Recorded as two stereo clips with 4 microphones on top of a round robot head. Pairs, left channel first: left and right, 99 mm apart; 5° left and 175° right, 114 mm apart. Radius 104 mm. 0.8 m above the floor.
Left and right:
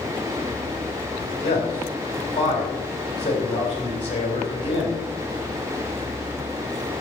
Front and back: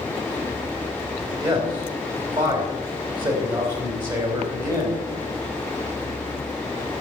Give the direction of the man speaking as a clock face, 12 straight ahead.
8 o'clock.